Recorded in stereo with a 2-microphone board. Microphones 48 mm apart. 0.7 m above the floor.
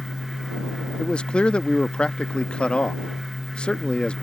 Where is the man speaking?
20° left (ahead or behind).